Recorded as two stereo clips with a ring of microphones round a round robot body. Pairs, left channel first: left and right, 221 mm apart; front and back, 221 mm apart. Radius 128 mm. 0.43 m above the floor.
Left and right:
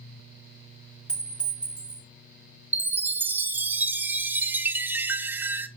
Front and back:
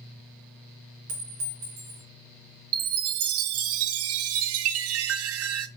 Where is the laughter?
No laughter in this recording.